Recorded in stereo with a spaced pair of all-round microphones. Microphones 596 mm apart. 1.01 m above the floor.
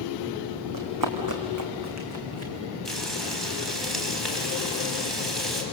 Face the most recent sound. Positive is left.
turn(degrees=0)  # may be behind; listen again after turning